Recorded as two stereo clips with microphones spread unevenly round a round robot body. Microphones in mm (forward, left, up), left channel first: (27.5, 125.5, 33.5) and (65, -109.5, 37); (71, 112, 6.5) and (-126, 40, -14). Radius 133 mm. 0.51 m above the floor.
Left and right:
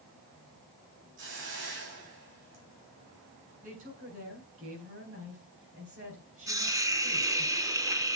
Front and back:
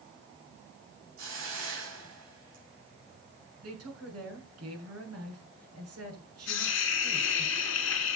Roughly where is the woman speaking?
Behind right.